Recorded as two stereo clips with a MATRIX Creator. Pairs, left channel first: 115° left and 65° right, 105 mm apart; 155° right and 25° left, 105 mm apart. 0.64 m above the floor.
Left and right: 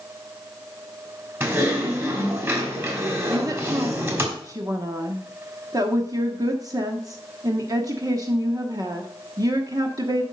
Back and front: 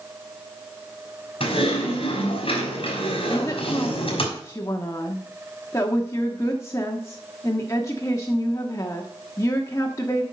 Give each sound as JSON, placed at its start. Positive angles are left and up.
{"t": 1.4, "sound": "typing on a keyboard", "azimuth_deg": -130, "distance_m": 3.0}
{"t": 3.3, "sound": "a woman speaking", "azimuth_deg": -105, "distance_m": 1.1}